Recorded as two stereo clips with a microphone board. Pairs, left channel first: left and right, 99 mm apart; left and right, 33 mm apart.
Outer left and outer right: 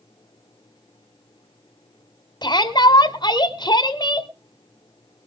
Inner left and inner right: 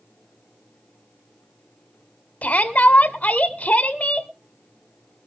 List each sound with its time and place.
2.4 s a shout: 45° left (ahead or behind), 1.9 m